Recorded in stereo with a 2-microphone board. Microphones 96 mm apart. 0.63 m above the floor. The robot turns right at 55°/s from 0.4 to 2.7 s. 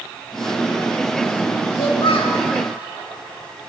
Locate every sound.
1.8 s a child speaking: 60° left, 1.1 m; by 2.4 s 95° left, 1.1 m